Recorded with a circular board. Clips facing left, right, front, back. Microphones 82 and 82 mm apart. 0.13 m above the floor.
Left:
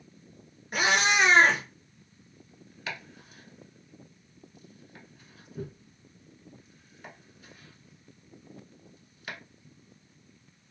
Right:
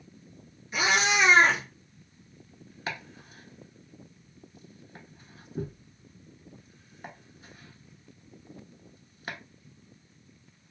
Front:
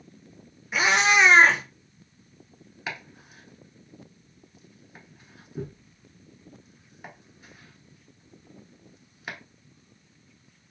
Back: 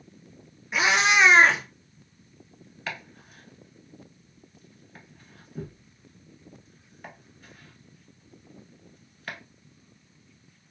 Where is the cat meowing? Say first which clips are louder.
Left 1 dB, front 1 dB; 85° left, 0.9 m.